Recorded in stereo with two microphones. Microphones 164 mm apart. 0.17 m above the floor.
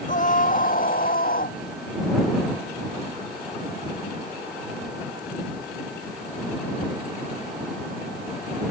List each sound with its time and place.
0.1 s a scream: 50° left (ahead or behind); by 1.6 s 60° left (ahead or behind)